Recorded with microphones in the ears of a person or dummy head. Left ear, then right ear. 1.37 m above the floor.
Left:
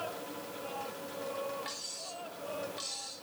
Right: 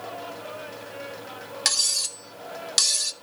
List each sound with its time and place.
1.6 s cutlery clinking: 65° right (ahead or behind), 0.9 m